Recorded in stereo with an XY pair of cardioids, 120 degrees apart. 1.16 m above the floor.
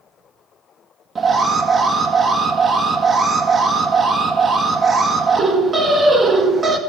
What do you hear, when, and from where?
1.1 s an alarm: 30° right, 1.5 m